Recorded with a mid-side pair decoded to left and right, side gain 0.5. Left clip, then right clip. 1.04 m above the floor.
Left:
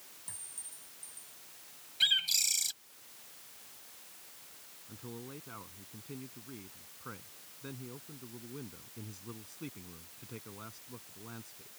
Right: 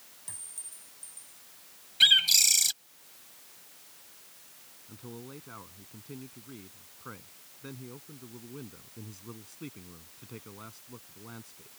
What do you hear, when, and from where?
0.3 s a clink: 20° right
2.0 s a bird: 50° right
4.9 s a man speaking: 10° right